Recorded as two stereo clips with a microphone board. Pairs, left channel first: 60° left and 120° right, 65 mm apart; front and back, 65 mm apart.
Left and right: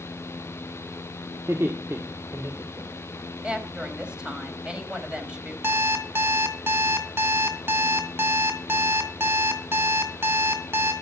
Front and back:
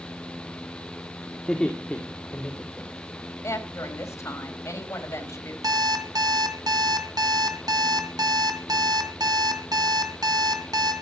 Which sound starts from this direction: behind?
An alarm clock, at 5.6 s.